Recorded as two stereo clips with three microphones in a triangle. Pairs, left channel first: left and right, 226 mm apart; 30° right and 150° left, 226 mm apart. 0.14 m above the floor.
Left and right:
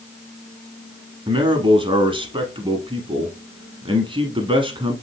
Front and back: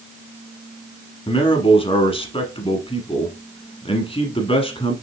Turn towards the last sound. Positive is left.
turn(degrees=-55)